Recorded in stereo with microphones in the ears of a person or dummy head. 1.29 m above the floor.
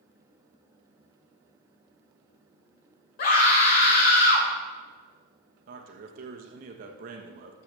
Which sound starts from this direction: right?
A man speaking, at 5.7 s.